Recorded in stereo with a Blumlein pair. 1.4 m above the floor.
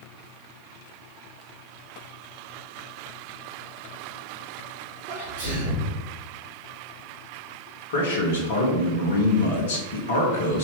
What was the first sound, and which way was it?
A sneeze, 65° right.